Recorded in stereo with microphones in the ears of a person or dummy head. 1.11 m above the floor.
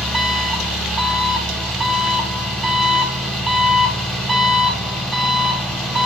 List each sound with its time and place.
0.0 s an engine running: 5° left (ahead or behind), 1.3 m